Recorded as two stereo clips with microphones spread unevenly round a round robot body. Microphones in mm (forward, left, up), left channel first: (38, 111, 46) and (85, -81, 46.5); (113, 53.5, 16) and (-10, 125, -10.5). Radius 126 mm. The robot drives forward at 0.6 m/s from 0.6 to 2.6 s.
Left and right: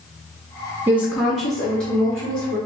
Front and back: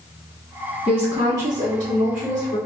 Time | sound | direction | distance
0.9 | a woman speaking | 145° right | 0.5 m